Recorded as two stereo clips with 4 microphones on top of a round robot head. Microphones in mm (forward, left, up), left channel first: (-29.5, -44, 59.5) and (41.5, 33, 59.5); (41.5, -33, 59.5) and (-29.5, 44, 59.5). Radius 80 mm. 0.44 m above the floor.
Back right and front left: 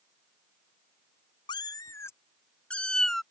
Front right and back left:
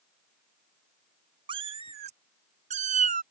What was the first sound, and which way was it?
A cat meowing, 175° left.